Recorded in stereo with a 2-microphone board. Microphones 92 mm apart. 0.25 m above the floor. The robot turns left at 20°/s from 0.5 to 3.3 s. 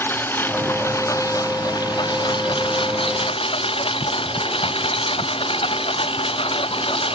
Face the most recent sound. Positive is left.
turn(degrees=100)